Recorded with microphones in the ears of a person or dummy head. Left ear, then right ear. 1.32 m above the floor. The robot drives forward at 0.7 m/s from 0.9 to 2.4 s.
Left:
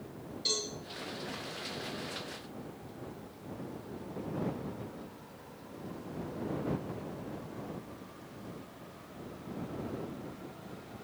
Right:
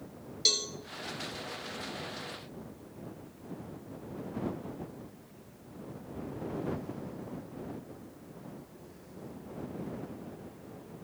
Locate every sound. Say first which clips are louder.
0.5 s a cowbell: right 5 dB; 35° right (ahead or behind), 1.8 m